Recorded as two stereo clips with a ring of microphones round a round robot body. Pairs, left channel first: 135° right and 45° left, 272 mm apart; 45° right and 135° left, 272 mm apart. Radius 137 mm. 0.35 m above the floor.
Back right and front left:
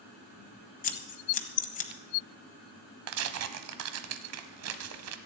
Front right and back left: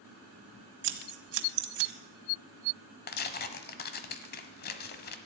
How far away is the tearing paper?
About 1.0 m.